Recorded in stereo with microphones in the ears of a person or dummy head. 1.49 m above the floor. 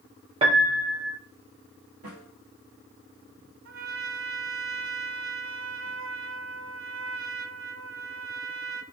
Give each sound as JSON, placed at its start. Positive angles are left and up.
{"t": 0.4, "sound": "a piano", "side_deg": -25, "distance_m": 0.7}
{"t": 2.0, "sound": "a snare drum", "side_deg": -60, "distance_m": 1.6}
{"t": 3.6, "sound": "a trumpet", "side_deg": -70, "distance_m": 0.6}